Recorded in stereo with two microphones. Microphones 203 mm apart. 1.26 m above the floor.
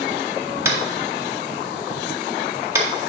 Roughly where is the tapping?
Centre.